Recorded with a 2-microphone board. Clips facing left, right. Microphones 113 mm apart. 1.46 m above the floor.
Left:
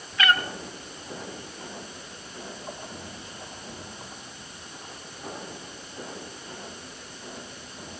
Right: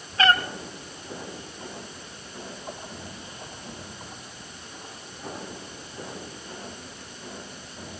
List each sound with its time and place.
0.2 s a cat meowing: 35° right (ahead or behind), 1.5 m